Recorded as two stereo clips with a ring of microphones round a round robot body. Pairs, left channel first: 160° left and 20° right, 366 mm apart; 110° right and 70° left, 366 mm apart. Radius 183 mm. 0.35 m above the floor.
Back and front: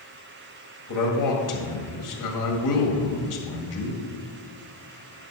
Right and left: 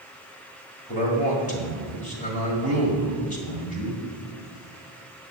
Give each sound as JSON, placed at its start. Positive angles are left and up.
{"t": 0.9, "sound": "a man speaking", "azimuth_deg": 180, "distance_m": 1.9}